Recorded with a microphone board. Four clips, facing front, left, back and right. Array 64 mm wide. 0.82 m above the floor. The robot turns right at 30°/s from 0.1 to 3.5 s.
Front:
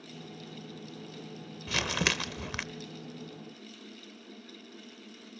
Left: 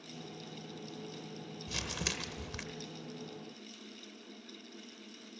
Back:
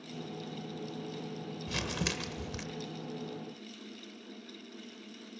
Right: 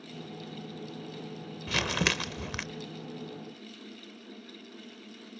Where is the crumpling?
65° right, 0.8 m; by 2.6 s 35° right, 0.8 m.